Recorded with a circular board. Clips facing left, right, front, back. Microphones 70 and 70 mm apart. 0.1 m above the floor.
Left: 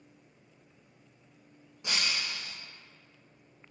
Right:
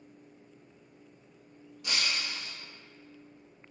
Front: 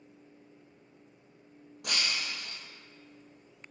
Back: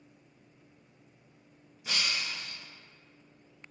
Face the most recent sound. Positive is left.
turn(degrees=25)